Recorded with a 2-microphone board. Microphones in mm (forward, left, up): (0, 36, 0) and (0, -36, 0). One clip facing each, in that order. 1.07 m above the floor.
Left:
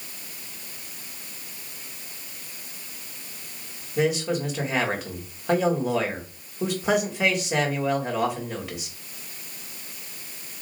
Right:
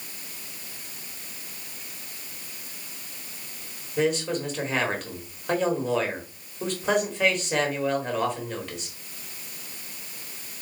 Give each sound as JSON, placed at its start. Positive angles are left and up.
{"t": 4.0, "sound": "a man speaking", "side_deg": 5, "distance_m": 1.4}